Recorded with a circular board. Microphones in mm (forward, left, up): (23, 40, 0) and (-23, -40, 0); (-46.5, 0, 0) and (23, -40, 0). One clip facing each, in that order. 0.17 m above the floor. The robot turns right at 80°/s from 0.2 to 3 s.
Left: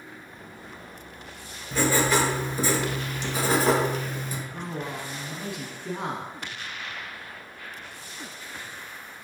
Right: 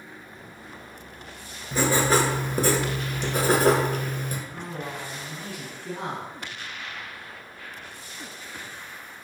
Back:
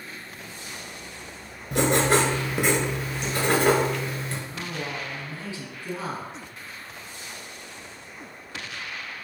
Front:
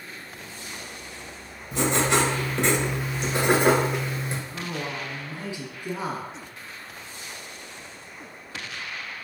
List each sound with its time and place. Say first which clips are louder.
1.7 s writing: right 1 dB, back 2 dB; 155° left, 1.1 m; by 4.4 s 100° right, 1.1 m
4.5 s a man speaking: left 1 dB, front 1 dB; 20° left, 1.2 m